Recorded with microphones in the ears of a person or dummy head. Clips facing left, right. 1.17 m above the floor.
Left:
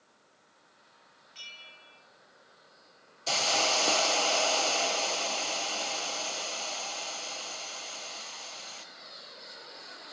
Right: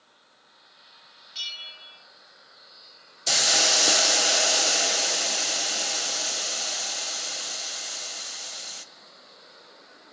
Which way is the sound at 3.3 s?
15° right (ahead or behind).